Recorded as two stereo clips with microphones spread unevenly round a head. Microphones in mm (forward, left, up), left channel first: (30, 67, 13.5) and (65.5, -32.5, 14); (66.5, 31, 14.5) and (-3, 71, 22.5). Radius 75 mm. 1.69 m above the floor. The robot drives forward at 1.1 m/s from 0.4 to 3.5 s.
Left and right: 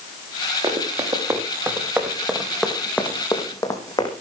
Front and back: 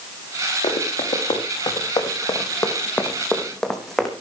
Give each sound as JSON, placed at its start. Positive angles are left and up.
{"t": 0.6, "sound": "running footsteps", "azimuth_deg": -20, "distance_m": 5.0}